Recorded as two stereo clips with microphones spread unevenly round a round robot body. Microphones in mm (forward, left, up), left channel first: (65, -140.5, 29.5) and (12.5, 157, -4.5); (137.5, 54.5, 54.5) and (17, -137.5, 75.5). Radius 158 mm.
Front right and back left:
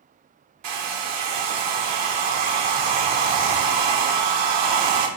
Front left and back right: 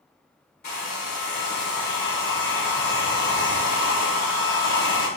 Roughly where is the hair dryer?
Behind left.